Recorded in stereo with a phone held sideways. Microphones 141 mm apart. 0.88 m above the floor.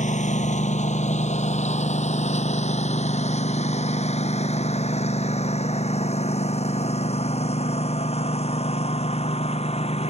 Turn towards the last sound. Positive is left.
turn(degrees=45)  # may be behind; listen again after turning